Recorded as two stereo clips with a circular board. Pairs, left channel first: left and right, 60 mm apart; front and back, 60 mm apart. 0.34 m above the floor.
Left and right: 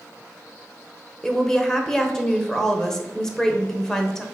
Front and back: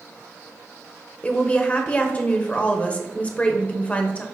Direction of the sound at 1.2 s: 20° left.